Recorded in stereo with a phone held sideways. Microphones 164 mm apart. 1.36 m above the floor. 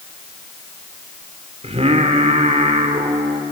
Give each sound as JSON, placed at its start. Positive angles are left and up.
{"t": 1.6, "sound": "singing", "side_deg": -40, "distance_m": 2.0}